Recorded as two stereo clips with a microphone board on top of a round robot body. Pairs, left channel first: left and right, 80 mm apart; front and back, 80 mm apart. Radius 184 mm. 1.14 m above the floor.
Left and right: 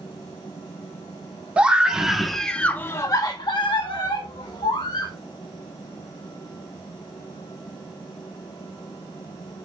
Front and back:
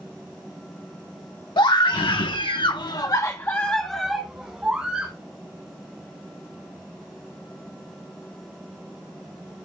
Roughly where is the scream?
Ahead.